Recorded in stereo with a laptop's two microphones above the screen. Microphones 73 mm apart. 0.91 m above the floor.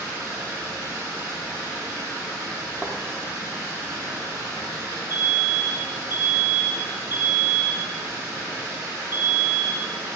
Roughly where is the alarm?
Left.